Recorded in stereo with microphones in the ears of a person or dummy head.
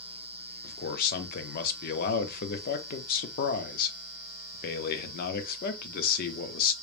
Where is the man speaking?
55° left (ahead or behind), 0.8 m.